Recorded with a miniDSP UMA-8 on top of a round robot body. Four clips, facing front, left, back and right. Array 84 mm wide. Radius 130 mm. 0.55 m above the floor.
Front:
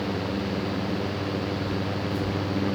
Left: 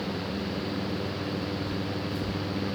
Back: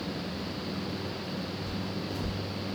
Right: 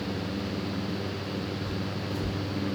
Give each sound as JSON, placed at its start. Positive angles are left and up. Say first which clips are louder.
{"t": 1.7, "sound": "footsteps", "louder": "left 1 dB, front 7 dB", "azimuth_deg": -135, "distance_m": 1.0}